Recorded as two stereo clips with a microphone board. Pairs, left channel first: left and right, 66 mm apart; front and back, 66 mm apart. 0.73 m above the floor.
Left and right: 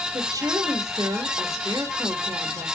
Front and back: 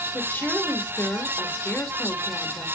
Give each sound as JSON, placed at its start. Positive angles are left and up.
{"t": 0.1, "sound": "a woman speaking", "azimuth_deg": -65, "distance_m": 2.0}